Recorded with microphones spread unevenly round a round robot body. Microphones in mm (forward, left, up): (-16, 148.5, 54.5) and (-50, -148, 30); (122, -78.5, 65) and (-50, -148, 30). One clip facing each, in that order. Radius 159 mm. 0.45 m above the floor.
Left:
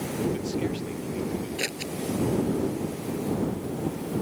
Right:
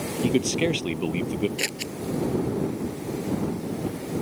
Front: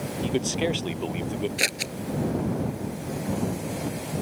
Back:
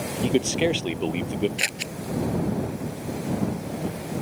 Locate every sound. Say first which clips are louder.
0.2 s a man speaking: right 6 dB, back 4 dB; 90° right
1.6 s scissors: even, front 2 dB; 15° right